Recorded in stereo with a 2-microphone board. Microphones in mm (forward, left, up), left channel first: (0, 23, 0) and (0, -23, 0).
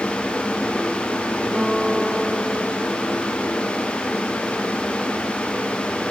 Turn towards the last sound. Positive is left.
turn(degrees=-30)  # may be behind; listen again after turning